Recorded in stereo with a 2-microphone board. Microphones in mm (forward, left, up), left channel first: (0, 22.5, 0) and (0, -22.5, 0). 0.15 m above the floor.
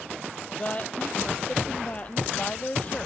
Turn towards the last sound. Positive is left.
turn(degrees=35)  # may be behind; listen again after turning